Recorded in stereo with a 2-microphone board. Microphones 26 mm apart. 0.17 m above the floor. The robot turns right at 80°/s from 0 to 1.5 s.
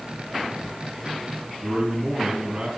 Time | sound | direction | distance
1.6 | a man speaking | 60° right (ahead or behind) | 3.5 m